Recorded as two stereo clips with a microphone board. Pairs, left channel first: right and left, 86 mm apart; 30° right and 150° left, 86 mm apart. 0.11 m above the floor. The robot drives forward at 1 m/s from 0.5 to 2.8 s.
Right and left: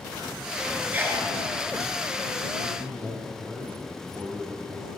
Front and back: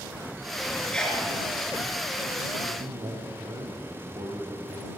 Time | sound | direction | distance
0.9 | a sneeze | 40° left | 1.5 m
2.6 | a man speaking | 145° left | 3 m